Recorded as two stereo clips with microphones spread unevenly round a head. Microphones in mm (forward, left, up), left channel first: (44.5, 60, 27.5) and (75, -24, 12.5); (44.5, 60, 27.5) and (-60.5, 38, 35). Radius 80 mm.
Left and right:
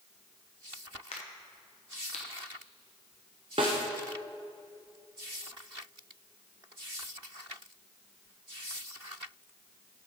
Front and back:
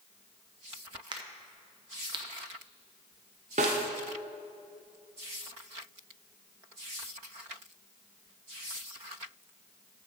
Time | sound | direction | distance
1.1 | a crack | 150° left | 0.8 m
3.6 | a snare drum | 125° right | 0.7 m